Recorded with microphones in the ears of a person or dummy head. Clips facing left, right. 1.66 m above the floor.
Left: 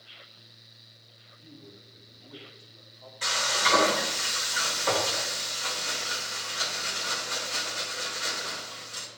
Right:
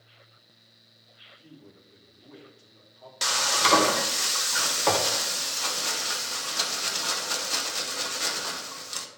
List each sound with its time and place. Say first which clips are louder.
1.4 s a man speaking: left 1 dB; 50° right (ahead or behind), 4 m; by 3.1 s 80° right, 4 m
3.2 s frying: right 2 dB; 85° right, 1.1 m